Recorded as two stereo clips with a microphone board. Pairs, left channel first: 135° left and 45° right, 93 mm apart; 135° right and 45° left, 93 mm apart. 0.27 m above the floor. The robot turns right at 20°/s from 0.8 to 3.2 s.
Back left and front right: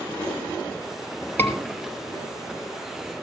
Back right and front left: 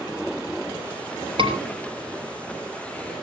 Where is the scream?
65° left, 5.5 m; by 1.6 s 70° left, 5.5 m.